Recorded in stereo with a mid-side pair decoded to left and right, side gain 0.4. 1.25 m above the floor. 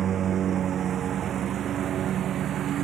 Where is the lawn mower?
65° right; by 2.8 s 75° right.